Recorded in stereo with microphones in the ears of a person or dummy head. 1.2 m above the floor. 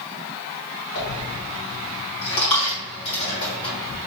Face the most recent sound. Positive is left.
turn(degrees=30)  # may be behind; listen again after turning